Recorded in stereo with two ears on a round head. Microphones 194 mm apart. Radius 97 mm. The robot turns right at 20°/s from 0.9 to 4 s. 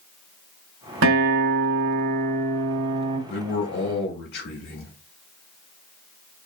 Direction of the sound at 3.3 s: 50° left (ahead or behind).